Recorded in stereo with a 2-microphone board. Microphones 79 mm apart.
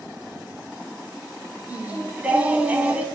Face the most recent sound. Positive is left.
turn(degrees=-15)  # may be behind; listen again after turning